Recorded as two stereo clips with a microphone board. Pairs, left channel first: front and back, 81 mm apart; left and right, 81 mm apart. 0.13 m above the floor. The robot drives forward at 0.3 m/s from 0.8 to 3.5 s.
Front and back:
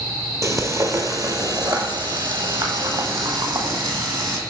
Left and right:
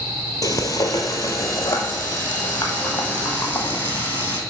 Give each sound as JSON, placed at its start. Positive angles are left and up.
{"t": 0.4, "sound": "frying", "azimuth_deg": 130, "distance_m": 0.9}